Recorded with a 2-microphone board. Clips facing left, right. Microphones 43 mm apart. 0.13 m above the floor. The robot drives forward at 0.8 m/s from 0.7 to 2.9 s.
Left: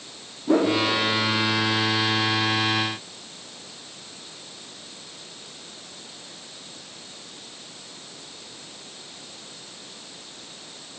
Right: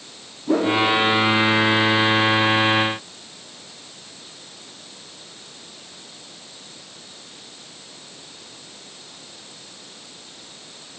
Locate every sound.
0.5 s a whoosh: centre (ahead or behind), 2 m